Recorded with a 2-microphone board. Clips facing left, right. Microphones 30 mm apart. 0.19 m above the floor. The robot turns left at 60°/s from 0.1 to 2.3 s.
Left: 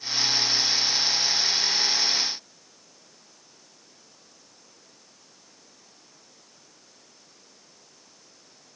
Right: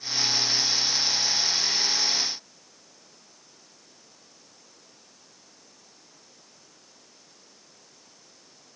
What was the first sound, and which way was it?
Only background noise.